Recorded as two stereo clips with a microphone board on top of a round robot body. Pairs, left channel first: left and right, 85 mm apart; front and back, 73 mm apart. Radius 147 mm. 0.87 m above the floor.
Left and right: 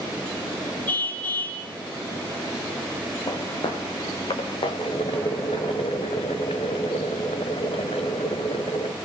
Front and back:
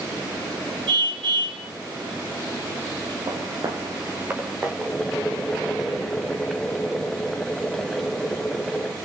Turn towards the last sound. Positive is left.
turn(degrees=85)